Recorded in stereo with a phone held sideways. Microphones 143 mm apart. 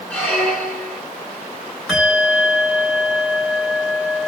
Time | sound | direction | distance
0.1 | a squeak | 5° left (ahead or behind) | 4.5 m
1.9 | a bell | 5° right (ahead or behind) | 7 m